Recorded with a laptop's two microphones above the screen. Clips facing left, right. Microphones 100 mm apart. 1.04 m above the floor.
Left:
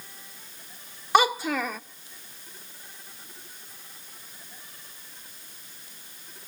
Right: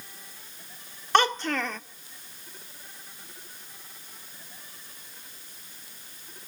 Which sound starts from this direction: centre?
A child speaking, at 1.1 s.